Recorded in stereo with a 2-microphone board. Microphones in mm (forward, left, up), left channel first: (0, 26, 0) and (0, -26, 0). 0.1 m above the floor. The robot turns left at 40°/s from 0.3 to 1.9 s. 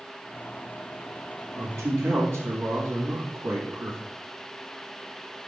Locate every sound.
1.6 s a man speaking: 65° right (ahead or behind), 4 m